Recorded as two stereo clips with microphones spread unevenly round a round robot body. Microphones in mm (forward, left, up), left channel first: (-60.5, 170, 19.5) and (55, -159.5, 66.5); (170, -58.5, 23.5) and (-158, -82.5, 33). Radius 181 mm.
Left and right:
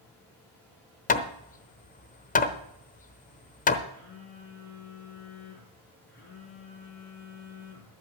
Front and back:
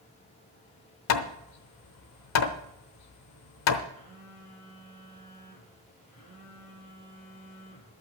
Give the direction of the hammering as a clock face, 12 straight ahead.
10 o'clock.